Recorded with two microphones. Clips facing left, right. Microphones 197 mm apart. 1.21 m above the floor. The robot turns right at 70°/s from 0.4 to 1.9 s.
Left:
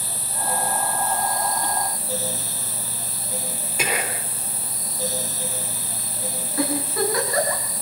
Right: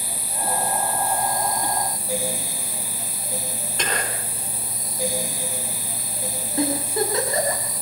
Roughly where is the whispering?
Centre.